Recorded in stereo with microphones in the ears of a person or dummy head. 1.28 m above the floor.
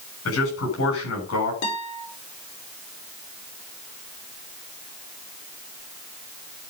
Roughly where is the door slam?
I don't hear a door slam.